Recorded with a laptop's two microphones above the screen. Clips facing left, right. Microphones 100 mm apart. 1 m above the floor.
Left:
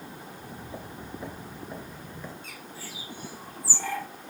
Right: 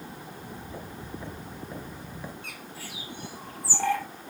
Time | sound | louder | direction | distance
0.2 | footsteps | right 1 dB | 30° left (ahead or behind) | 1.5 m
2.4 | a bird | right 1 dB | 60° right (ahead or behind) | 1.1 m